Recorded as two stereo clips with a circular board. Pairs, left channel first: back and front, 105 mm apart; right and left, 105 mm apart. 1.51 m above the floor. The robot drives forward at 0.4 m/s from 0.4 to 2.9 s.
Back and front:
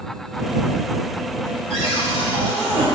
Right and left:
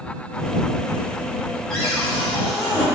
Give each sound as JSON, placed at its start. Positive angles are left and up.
{"t": 1.7, "sound": "a cupboard door", "azimuth_deg": -175, "distance_m": 2.0}